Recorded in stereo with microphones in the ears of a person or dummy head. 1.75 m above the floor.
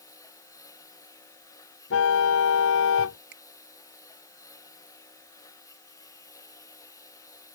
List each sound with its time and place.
0.0 s a lawn mower: 20° left (ahead or behind)
1.9 s a car horn: 80° left
3.3 s a finger snap: 65° right (ahead or behind)